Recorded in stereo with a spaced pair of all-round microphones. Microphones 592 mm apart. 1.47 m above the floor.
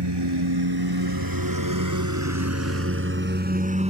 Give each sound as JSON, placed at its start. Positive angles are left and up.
{"t": 0.0, "sound": "a lawn mower", "side_deg": -45}